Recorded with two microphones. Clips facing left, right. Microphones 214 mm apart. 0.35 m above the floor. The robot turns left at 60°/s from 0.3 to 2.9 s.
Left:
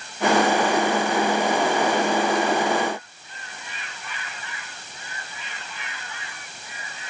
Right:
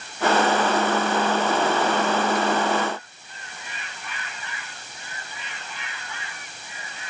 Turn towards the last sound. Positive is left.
No sound to turn to.